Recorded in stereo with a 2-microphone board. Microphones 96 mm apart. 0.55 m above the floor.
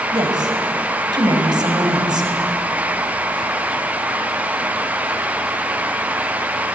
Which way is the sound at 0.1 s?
50° right (ahead or behind).